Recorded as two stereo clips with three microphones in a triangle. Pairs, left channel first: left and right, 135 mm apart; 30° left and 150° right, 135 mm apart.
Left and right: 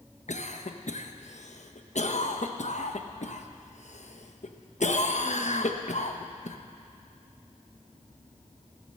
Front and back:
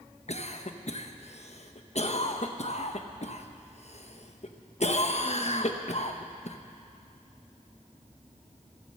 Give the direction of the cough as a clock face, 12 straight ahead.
10 o'clock.